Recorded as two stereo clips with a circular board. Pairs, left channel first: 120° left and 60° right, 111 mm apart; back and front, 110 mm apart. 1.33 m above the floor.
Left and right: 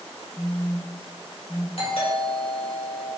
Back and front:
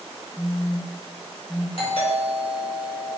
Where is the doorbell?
145° left, 4 m.